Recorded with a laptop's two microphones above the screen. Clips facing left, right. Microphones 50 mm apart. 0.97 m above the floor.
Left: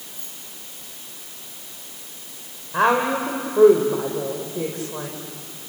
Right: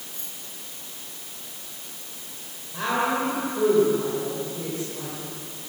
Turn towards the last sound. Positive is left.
turn(degrees=65)  # may be behind; listen again after turning